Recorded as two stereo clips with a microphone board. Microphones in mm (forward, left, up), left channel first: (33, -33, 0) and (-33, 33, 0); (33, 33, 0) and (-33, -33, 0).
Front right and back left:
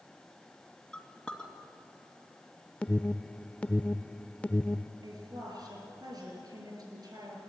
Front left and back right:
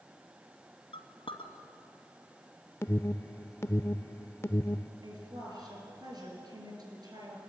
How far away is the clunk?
I don't hear a clunk.